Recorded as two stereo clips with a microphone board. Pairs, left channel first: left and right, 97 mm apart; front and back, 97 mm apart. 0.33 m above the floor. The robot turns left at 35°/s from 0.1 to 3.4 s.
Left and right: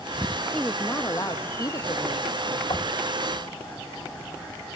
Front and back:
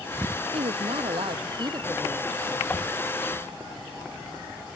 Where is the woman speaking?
175° left; by 2.6 s 100° left.